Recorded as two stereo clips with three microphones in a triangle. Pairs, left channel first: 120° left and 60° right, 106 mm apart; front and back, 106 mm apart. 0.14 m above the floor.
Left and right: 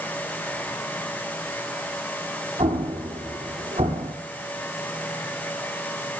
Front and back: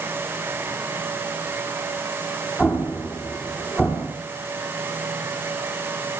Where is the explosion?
90° right, 4.5 m.